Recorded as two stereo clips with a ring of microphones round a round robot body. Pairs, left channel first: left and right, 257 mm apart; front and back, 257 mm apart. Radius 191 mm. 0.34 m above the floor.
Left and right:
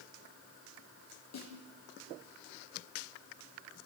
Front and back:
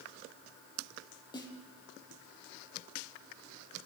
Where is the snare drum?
75° left, 8.5 m.